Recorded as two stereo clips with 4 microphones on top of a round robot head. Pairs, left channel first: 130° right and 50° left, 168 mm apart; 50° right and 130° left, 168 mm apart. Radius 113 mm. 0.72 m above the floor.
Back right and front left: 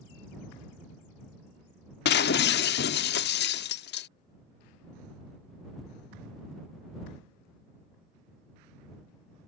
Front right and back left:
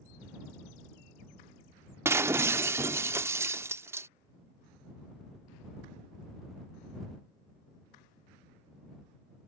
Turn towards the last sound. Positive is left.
turn(degrees=-155)